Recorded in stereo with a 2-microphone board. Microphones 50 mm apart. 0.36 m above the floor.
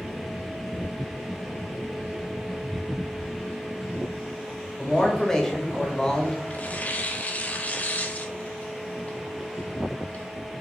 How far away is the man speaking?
About 0.9 m.